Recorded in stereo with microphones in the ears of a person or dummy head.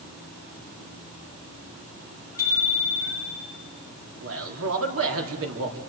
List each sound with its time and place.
2.4 s a bicycle bell: 25° left (ahead or behind), 8 m
4.2 s a man speaking: 80° right, 3.5 m